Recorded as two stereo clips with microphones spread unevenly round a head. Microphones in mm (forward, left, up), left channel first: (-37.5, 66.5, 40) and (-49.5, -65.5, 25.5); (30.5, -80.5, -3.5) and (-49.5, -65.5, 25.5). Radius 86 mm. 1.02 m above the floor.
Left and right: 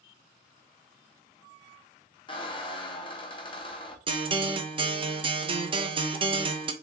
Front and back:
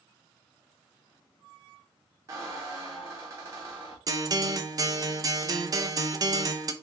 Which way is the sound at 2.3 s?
125° left.